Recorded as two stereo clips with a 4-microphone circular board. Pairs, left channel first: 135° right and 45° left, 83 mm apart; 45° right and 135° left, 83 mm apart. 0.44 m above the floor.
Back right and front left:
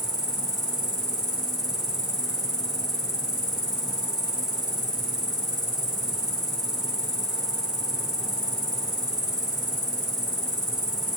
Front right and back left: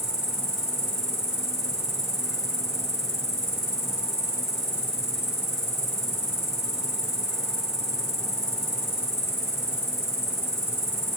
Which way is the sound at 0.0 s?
100° right.